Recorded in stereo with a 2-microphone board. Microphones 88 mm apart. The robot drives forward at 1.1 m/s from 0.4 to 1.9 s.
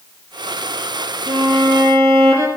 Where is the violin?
65° right (ahead or behind), 1.5 m; by 2.5 s 50° right (ahead or behind), 1.9 m.